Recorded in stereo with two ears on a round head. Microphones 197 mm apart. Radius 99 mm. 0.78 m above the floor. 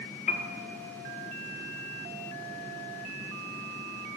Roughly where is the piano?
Left.